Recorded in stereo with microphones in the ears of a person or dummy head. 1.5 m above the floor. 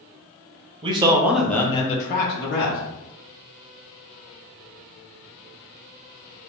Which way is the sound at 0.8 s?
30° right (ahead or behind).